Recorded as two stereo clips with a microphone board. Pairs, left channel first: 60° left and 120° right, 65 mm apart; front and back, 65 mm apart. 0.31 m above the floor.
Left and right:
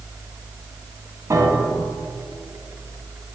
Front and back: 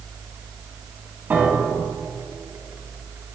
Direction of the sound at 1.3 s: 125° right.